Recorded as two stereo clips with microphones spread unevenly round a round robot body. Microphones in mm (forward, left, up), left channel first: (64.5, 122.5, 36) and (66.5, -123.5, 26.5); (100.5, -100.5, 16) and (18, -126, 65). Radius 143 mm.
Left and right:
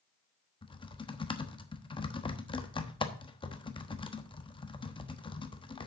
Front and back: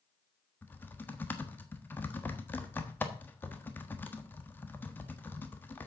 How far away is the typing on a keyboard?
About 1.2 m.